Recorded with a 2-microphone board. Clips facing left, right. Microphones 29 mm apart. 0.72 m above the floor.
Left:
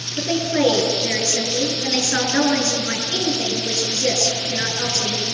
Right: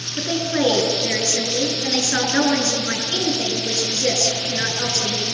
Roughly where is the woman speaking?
Centre.